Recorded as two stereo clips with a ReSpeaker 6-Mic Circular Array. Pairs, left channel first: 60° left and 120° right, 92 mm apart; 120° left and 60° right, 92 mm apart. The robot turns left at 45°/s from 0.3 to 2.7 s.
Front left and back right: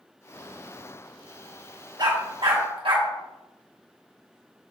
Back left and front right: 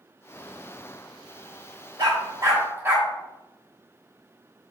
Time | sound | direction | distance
2.0 | a dog barking | 85° right | 1.9 m